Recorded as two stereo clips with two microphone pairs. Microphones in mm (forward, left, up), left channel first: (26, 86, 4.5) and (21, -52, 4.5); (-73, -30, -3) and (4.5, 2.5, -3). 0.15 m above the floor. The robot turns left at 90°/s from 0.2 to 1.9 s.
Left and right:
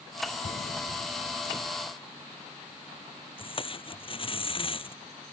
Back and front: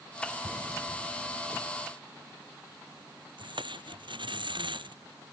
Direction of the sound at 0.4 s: 115° left.